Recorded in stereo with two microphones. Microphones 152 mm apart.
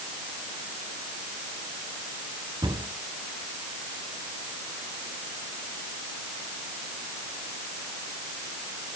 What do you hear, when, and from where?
2.6 s a cupboard door: 30° right (ahead or behind), 3.5 m